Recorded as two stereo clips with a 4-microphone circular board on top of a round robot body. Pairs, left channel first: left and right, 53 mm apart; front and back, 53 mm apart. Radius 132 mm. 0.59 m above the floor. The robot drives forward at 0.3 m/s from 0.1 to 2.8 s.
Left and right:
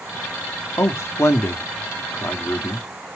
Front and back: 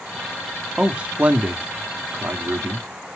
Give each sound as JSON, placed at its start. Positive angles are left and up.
{"t": 0.8, "sound": "a man speaking", "azimuth_deg": 110, "distance_m": 1.1}